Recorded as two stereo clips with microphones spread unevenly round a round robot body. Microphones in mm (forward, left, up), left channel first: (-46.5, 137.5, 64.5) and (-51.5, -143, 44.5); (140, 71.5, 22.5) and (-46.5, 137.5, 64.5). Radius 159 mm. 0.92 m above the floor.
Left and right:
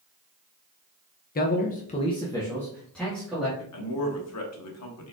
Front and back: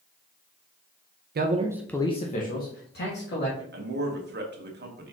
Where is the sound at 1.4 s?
140° left, 0.6 m; by 3.6 s straight ahead, 1.9 m.